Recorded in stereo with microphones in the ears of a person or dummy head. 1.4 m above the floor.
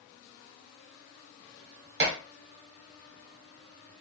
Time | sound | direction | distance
2.0 | dishes clattering | 50° right (ahead or behind) | 1.3 m